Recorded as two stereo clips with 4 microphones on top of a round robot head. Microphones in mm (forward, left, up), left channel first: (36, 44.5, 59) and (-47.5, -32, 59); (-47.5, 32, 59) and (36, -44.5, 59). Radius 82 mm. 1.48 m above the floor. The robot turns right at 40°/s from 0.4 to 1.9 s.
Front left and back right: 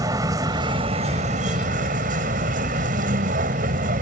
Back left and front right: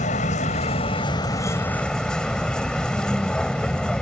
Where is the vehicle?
160° left; by 4.0 s 140° right.